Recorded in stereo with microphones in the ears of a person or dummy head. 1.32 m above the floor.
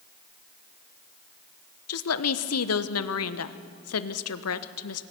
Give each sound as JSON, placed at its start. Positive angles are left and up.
{"t": 1.9, "sound": "a woman speaking", "side_deg": 70, "distance_m": 1.1}